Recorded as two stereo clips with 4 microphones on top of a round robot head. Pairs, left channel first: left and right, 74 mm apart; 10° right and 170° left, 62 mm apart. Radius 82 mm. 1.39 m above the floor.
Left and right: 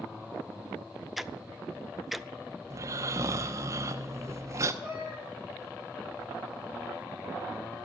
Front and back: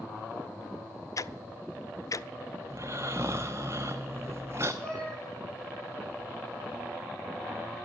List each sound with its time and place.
1.2 s ticking: 5° right, 0.7 m
2.7 s snoring: 125° right, 0.9 m
4.8 s a cat meowing: 65° left, 9.5 m